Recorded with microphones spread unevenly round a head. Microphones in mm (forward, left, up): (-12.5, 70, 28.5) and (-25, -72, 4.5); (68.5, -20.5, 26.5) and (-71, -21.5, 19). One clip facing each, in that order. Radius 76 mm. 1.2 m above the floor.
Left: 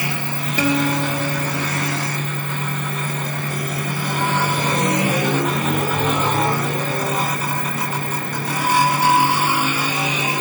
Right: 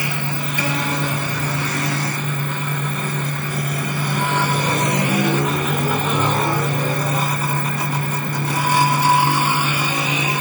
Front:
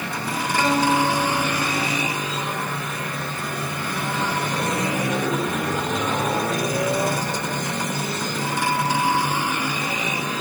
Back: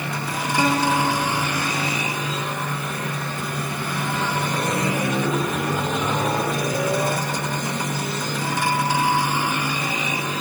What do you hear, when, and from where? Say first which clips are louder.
0.6 s a guitar: left 6 dB, front 1 dB; 100° left, 1.6 m